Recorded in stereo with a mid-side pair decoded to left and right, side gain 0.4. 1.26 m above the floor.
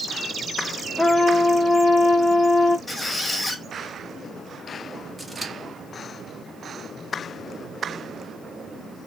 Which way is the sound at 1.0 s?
Straight ahead.